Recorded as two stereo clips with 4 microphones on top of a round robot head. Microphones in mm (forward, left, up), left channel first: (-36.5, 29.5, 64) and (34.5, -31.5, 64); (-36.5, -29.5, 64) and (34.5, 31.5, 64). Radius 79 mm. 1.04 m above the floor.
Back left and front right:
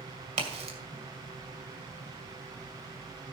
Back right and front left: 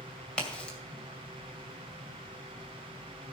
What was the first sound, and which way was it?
A crack, 60° right.